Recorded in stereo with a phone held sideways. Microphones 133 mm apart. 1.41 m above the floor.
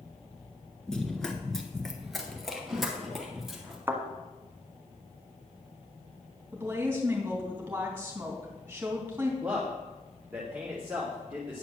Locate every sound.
0.9 s running footsteps: 5° left (ahead or behind), 1.4 m; by 3.8 s centre (ahead or behind), 3 m
3.9 s a thud: 15° right (ahead or behind), 1.5 m
6.5 s a woman speaking: 15° right (ahead or behind), 3 m
9.4 s a man speaking: 10° right (ahead or behind), 2 m